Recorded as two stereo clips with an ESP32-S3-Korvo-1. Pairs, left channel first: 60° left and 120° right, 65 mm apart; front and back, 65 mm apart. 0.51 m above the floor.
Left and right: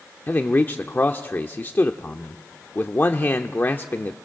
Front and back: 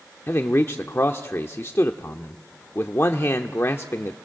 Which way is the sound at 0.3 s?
20° left.